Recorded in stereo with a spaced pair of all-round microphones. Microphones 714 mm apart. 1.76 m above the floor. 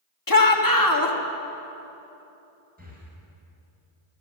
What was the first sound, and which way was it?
A shout, 30° left (ahead or behind).